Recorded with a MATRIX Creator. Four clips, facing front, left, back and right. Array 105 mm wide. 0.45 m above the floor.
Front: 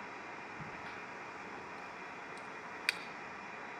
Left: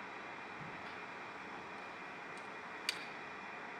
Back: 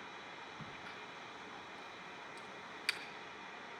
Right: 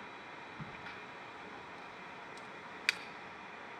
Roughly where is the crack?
Ahead right.